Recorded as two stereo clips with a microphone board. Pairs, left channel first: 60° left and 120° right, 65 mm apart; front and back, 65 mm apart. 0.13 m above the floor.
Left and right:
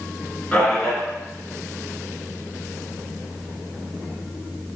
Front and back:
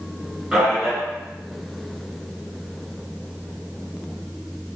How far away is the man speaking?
About 1.9 m.